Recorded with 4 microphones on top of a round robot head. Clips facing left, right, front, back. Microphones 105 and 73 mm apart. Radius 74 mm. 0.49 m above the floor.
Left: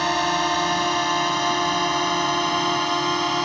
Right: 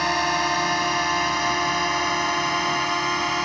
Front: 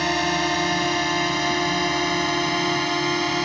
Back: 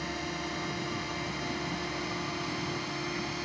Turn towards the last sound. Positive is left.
turn(degrees=20)